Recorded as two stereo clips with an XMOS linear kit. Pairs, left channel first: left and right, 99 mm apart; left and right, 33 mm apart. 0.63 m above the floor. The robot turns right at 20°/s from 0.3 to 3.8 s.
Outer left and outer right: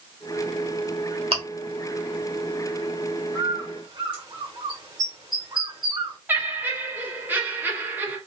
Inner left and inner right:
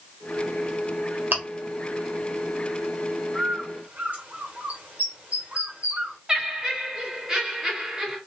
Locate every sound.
1.3 s chewing: 60° right (ahead or behind), 1.3 m
3.3 s a bird: 40° right (ahead or behind), 1.2 m; by 6.2 s 45° right (ahead or behind), 1.2 m
6.3 s laughter: 20° right (ahead or behind), 1.1 m